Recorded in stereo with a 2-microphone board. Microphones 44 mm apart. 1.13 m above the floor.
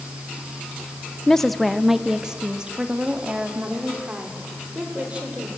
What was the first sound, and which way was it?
A woman speaking, 15° left (ahead or behind).